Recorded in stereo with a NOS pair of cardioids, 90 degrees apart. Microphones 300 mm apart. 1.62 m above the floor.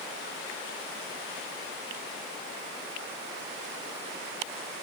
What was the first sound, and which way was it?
Only background noise.